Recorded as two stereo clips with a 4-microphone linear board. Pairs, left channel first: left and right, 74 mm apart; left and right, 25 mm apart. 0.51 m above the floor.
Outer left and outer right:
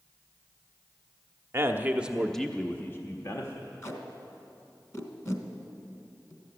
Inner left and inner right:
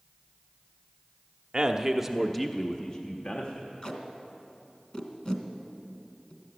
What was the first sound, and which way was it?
A man speaking, 35° right (ahead or behind).